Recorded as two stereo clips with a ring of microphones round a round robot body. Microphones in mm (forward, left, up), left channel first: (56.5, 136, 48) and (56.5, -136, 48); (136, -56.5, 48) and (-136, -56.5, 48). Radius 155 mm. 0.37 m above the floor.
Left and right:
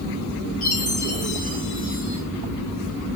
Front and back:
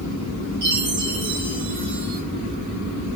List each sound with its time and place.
0.6 s a chime: 145° left, 5.5 m